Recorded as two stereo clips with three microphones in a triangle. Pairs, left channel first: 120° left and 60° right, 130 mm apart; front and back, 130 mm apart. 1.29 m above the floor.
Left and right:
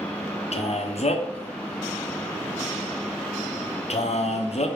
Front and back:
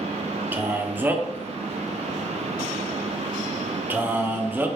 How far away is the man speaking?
About 0.6 m.